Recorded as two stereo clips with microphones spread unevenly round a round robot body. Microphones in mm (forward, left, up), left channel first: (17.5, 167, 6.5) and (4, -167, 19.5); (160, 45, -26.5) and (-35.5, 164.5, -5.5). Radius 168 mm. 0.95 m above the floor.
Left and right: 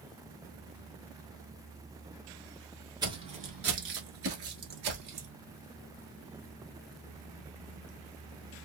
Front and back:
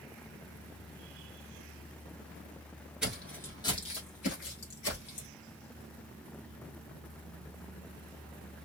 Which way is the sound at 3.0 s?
145° right.